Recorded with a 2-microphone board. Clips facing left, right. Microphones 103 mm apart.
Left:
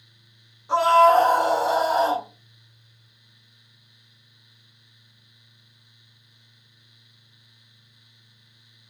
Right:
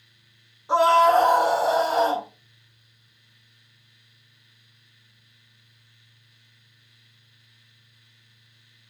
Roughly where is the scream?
Centre.